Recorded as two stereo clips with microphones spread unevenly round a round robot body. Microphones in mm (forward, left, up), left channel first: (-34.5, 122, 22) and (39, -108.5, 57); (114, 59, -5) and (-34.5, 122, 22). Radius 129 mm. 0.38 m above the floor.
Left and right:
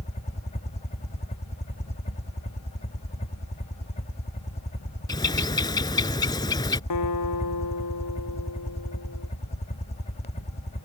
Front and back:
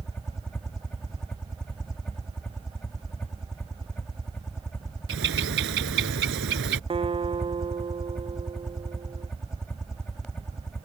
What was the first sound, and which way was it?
A helicopter, 55° left.